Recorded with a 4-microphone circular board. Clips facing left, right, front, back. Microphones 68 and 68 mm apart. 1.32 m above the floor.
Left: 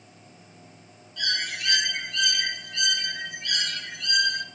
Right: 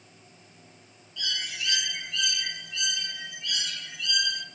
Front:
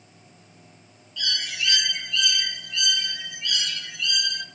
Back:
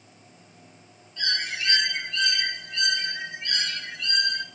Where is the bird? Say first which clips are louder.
Left 4 dB, back 1 dB; 125° left, 0.6 m.